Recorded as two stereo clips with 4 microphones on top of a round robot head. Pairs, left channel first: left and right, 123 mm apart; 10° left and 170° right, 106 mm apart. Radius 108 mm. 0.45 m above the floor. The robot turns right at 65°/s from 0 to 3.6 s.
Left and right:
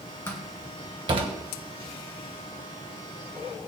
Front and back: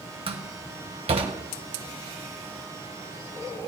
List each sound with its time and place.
0.3 s a door slam: 165° left, 1.8 m; by 1.4 s 125° right, 1.8 m